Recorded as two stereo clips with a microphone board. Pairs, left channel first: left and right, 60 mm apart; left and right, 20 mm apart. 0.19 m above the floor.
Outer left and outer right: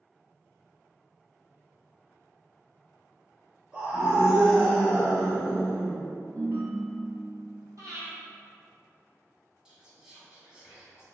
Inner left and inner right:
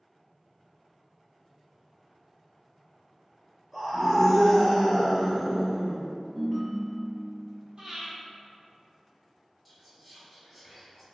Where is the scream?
20° right (ahead or behind), 1.4 m; by 6.0 s 5° right (ahead or behind), 1.8 m.